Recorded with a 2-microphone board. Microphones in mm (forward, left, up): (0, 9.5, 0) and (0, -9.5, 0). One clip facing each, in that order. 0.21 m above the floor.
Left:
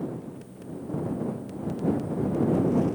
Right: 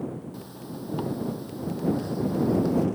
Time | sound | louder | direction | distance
0.3 | a zipper | right 1 dB | 85° right | ?